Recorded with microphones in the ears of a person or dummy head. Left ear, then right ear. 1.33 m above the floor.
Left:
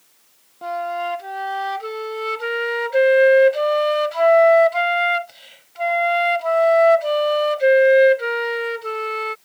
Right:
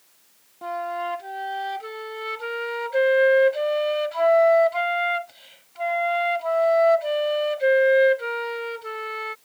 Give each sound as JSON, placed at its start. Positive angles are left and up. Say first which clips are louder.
{"t": 0.6, "sound": "a flute", "louder": "left 4 dB", "side_deg": 10}